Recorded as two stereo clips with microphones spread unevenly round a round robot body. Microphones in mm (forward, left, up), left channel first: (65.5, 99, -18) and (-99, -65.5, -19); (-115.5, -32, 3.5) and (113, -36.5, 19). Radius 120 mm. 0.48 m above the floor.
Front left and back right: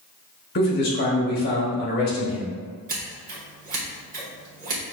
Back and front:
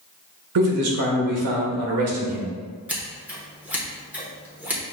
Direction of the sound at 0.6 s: 5° right.